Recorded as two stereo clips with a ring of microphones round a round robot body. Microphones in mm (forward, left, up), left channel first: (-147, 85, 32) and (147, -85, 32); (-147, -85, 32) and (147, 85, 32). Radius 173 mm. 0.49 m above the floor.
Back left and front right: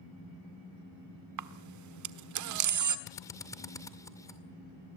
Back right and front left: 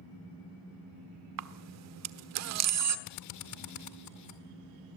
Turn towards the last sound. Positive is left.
turn(degrees=-130)